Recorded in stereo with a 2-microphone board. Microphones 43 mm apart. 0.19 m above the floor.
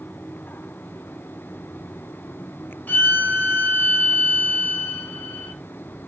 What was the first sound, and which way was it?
A violin, 45° left (ahead or behind).